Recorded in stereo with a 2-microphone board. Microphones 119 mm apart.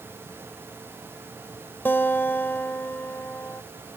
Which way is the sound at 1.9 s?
15° left (ahead or behind).